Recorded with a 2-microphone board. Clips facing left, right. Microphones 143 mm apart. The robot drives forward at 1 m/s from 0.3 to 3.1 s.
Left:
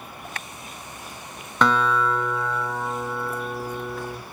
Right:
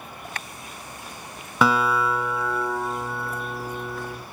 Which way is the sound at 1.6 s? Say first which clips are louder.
Even; 5° right (ahead or behind).